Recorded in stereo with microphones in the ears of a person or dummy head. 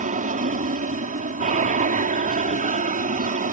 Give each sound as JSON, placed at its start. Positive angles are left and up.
{"t": 0.0, "sound": "an aircraft", "side_deg": -40}